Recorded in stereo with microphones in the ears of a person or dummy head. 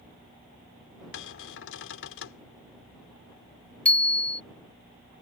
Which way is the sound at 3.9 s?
10° left (ahead or behind).